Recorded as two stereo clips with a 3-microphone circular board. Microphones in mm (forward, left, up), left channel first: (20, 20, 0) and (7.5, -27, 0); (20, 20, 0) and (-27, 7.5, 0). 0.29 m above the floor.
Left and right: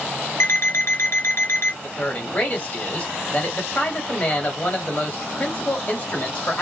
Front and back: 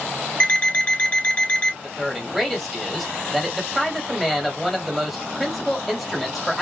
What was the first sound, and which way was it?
An alarm clock, 75° left.